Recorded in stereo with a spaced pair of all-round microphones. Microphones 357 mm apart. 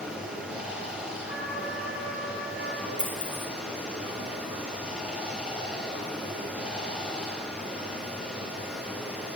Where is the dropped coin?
30° right (ahead or behind), 3 m.